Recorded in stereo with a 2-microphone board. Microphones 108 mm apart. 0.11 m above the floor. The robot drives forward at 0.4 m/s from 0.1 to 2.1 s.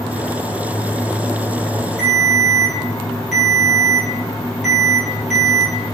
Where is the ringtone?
Centre (ahead or behind), 1.6 m.